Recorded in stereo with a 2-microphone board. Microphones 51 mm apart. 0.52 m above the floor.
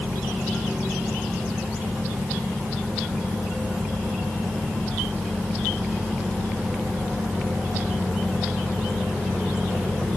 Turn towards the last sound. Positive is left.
No sound to turn to.